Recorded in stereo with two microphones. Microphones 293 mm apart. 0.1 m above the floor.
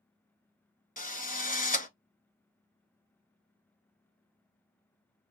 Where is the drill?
30° left (ahead or behind), 1.0 m.